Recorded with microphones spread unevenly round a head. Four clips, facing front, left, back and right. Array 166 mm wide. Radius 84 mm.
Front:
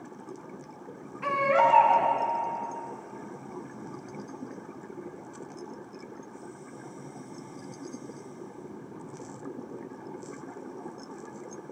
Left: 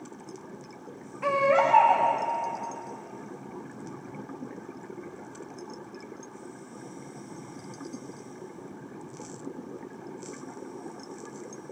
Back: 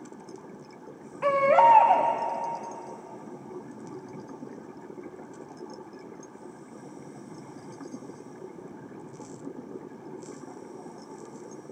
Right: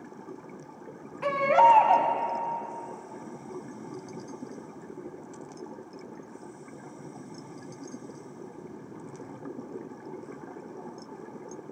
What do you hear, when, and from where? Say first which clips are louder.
1.2 s a baby crying: right 3 dB, back 4 dB; 165° right, 1.6 m